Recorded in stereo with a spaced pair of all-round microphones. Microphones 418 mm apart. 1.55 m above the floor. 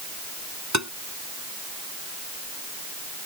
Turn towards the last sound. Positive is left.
turn(degrees=-40)  # may be behind; listen again after turning